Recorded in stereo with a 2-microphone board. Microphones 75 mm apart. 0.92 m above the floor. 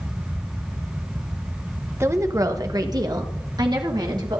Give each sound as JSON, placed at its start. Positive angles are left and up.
{"t": 2.0, "sound": "a woman speaking", "side_deg": -35, "distance_m": 1.0}